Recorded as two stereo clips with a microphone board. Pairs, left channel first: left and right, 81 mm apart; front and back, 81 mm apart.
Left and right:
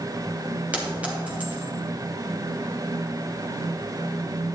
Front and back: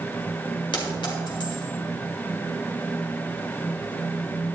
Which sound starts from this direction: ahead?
A clink, at 0.7 s.